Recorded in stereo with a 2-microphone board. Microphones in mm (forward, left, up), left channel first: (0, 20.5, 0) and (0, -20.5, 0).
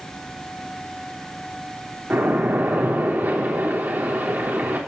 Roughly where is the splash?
Right.